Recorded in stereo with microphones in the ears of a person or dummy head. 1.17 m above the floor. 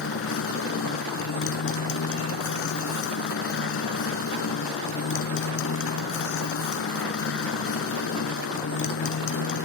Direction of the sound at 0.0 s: 85° left.